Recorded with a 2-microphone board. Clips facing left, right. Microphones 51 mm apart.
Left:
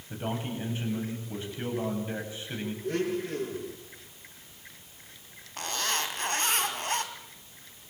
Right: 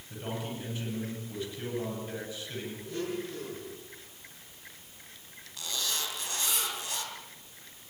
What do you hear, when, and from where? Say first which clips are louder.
0.1 s a man speaking: left 3 dB; 30° left (ahead or behind), 9.5 m
2.8 s a blender: left 6 dB; 60° left (ahead or behind), 9.5 m
5.6 s a zipper: left 5 dB; 50° left (ahead or behind), 3.5 m